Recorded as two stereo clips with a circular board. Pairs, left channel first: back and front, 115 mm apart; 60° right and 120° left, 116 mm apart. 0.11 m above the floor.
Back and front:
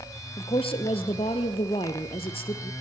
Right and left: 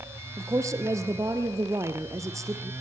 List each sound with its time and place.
0.4 s a woman speaking: 175° left, 1.8 m